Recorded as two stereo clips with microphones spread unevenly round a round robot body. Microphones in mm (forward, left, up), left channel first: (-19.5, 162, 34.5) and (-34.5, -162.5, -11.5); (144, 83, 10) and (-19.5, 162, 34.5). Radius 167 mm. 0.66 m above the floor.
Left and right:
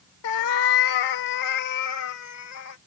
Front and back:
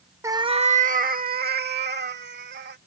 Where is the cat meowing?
75° left; by 2.8 s 130° left.